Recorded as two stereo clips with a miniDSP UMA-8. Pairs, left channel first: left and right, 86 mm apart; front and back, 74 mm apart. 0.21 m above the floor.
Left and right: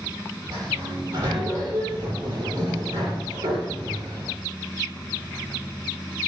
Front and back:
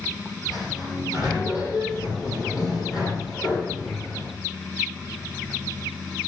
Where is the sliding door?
40° right, 9.5 m.